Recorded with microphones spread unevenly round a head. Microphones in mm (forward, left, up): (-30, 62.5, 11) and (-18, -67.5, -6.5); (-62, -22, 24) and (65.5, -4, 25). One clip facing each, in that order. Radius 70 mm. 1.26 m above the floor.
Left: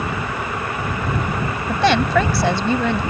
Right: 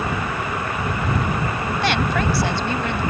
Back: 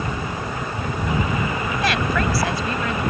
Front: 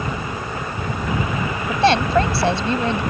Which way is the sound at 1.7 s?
70° left.